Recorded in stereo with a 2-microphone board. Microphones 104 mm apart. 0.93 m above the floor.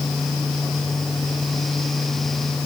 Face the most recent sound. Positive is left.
No sound to turn to.